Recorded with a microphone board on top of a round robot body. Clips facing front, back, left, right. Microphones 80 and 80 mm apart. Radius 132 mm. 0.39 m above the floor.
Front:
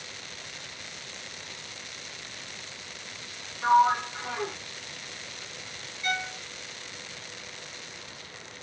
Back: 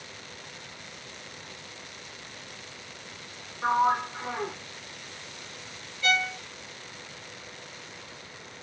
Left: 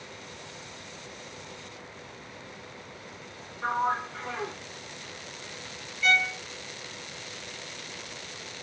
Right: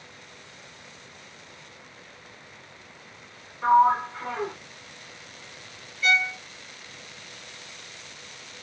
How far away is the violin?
About 0.6 m.